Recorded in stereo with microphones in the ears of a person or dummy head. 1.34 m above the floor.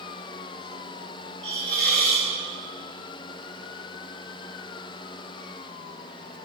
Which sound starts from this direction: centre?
A hiss, at 1.4 s.